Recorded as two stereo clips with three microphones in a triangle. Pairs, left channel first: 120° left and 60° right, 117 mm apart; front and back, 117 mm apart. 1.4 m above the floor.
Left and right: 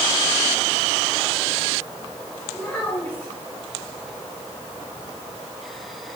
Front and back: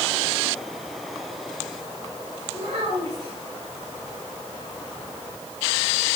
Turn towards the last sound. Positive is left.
turn(degrees=-160)